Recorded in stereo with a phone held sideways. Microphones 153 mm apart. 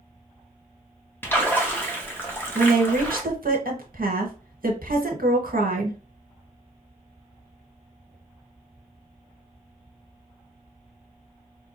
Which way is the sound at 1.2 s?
15° left (ahead or behind).